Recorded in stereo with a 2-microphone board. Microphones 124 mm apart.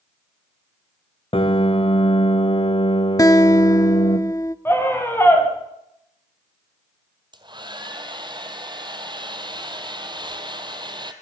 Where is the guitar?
25° left (ahead or behind), 0.7 m.